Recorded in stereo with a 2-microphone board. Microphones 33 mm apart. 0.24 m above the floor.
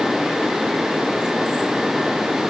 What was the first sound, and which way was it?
Only background noise.